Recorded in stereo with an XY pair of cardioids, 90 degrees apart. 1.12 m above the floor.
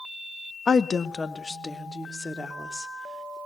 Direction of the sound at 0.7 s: 50° left.